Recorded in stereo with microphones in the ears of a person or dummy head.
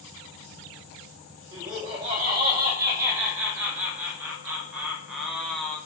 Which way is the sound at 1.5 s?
25° right (ahead or behind).